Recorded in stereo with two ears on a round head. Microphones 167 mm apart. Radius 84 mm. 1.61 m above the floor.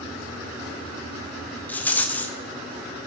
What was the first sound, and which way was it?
A rattle, 10° left (ahead or behind).